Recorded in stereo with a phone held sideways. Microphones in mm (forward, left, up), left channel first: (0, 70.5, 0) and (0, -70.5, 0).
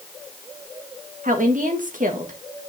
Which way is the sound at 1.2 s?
80° right.